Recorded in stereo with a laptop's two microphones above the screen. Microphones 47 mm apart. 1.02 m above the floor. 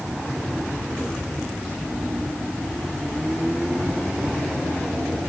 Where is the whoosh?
No whoosh in this recording.